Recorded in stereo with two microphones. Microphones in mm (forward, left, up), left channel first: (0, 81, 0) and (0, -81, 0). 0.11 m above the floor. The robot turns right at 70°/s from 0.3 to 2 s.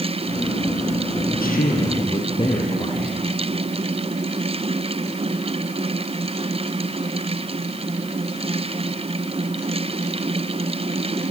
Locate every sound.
1.3 s a man speaking: 100° left, 3.5 m; by 3.2 s 145° left, 3.5 m